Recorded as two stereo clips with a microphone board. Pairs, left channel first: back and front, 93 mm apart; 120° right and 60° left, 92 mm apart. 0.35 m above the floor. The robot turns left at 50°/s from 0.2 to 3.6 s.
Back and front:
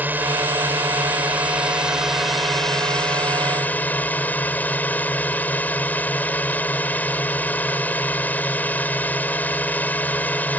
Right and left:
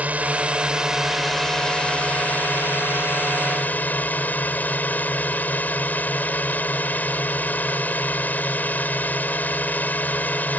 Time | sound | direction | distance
0.0 | a drone | 20° left | ?